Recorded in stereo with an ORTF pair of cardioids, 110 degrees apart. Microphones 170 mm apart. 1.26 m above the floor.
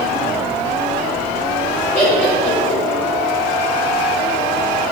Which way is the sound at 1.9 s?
15° left.